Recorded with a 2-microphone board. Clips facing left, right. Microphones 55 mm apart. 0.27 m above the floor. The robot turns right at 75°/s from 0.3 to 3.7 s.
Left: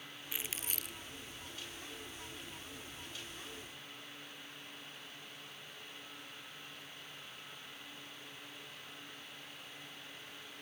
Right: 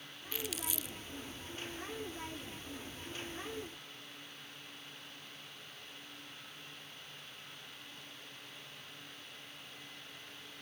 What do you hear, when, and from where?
0.3 s crumpling: 15° left (ahead or behind); by 1.0 s 65° left (ahead or behind)